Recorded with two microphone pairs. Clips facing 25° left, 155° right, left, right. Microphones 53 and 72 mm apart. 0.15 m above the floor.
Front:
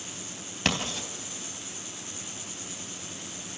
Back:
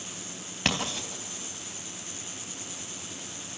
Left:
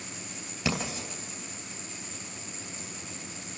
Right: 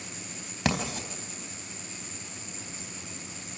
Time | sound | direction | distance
0.7 | writing | 75° right | 3.5 m